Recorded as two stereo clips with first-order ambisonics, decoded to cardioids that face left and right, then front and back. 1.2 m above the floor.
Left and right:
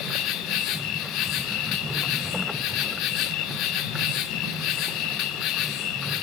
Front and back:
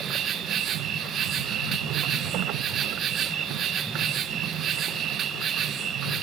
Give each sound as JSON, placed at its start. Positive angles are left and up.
{"t": 0.0, "sound": "an insect", "azimuth_deg": 125, "distance_m": 1.0}